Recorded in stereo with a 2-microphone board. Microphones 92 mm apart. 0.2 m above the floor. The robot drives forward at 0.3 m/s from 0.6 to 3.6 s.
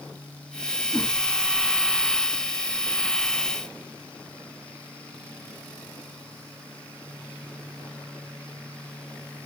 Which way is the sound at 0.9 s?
25° left (ahead or behind).